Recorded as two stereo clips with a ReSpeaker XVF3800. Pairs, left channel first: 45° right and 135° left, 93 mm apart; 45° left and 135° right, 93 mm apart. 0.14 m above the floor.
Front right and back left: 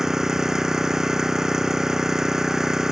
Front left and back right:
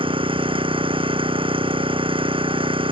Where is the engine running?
140° right.